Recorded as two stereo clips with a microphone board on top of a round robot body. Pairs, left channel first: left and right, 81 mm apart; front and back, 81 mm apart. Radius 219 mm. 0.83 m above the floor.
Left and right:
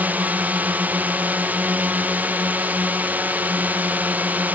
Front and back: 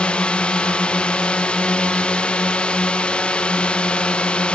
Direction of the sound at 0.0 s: 55° right.